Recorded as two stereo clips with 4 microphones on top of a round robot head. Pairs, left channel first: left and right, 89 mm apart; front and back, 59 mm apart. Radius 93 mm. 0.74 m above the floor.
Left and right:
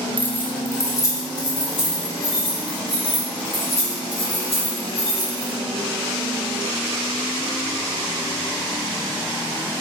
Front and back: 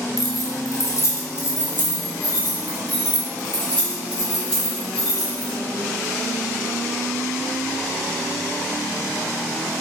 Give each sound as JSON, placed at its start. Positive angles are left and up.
{"t": 0.2, "sound": "keys jangling", "azimuth_deg": 15, "distance_m": 1.3}